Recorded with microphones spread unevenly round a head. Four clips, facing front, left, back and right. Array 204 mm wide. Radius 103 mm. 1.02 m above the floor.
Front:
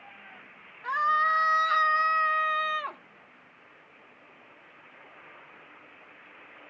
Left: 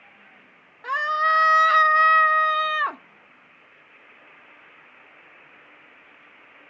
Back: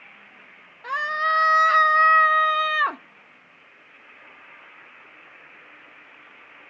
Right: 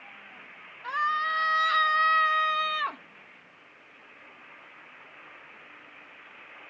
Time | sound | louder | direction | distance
0.8 | a scream | left 6 dB, even | 100° left | ?